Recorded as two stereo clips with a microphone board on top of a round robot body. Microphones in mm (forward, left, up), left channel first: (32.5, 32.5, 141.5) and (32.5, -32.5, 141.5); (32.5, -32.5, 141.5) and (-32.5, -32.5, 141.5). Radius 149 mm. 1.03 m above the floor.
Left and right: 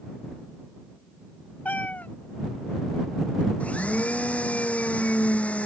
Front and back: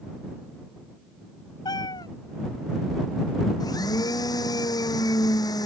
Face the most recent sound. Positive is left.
turn(degrees=20)